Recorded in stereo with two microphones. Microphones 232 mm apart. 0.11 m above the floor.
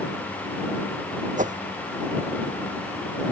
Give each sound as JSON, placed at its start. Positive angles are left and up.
{"t": 1.4, "sound": "a whoosh", "side_deg": -35}